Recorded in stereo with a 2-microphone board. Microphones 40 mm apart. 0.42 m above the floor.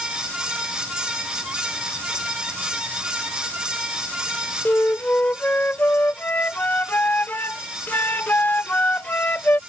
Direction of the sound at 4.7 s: 50° left (ahead or behind).